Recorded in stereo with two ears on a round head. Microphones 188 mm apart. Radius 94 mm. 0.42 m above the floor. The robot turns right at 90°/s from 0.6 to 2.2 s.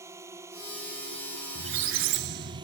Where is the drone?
165° right; by 2.6 s 25° right.